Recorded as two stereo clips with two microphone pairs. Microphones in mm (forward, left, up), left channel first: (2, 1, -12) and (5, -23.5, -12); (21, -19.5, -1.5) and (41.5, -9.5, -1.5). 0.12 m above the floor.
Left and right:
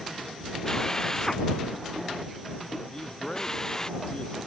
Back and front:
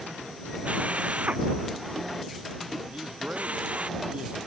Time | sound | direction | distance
0.7 | a drill | 30° left | ?
2.9 | a man speaking | 40° left | ?